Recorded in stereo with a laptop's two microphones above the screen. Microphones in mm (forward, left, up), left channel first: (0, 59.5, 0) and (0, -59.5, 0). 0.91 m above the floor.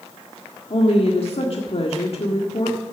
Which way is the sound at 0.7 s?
55° left (ahead or behind).